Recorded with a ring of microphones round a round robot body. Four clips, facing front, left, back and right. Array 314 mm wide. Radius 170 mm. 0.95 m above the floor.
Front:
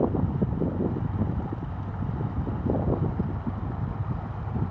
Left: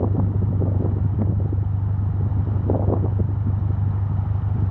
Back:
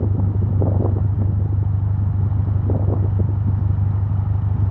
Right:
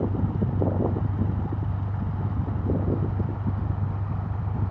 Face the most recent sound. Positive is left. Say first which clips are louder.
# left 2 dB, even
turn(degrees=160)